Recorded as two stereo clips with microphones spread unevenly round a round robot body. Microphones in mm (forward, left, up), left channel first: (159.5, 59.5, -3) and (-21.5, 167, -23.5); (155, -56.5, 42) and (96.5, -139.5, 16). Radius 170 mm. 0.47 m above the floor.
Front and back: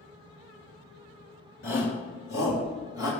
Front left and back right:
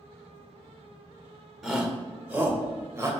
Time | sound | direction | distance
1.6 | a shout | 50° right | 1.9 m